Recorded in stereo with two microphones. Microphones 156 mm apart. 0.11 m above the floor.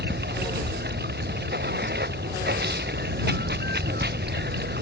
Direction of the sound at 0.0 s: 90° right.